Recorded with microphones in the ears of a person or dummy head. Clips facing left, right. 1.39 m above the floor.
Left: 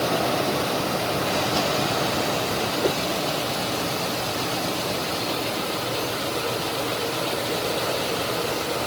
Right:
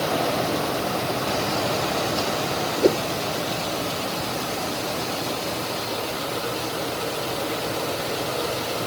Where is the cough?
No cough in this recording.